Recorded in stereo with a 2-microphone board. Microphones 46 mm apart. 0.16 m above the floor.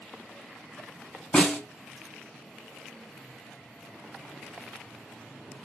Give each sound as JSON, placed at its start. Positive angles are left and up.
{"t": 1.3, "sound": "a snare drum", "side_deg": 20, "distance_m": 1.7}